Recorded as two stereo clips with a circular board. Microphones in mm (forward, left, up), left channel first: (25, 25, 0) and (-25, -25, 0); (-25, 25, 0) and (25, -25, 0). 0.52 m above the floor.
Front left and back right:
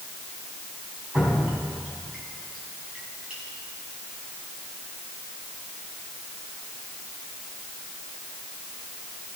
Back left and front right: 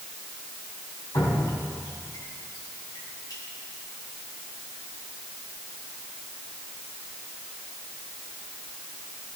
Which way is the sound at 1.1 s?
150° left.